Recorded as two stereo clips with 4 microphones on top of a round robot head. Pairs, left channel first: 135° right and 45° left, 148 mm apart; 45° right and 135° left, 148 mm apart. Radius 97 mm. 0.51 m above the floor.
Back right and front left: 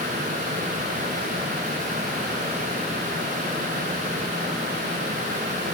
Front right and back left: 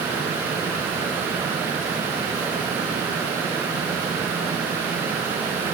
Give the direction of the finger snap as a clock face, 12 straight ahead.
No finger snap in this recording.